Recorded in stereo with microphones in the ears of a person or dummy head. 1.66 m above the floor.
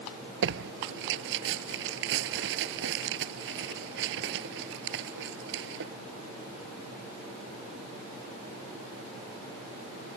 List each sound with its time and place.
0.4 s tearing paper: 70° right (ahead or behind)